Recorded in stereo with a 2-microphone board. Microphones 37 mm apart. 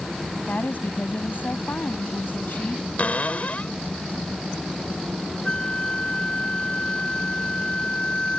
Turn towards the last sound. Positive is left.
turn(degrees=25)  # may be behind; listen again after turning